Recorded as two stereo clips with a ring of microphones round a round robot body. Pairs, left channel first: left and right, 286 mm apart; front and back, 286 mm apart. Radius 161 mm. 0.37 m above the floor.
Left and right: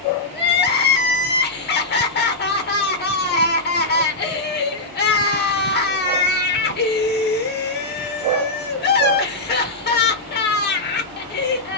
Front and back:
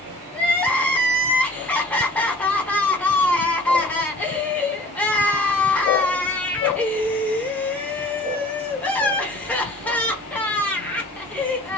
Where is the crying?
80° left, 1.0 m.